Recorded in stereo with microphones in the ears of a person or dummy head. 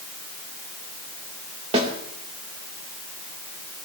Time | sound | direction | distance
1.7 | a snare drum | 30° right (ahead or behind) | 2.5 m